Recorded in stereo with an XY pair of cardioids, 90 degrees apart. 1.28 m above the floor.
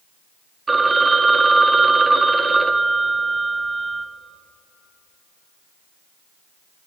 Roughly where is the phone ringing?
Ahead right.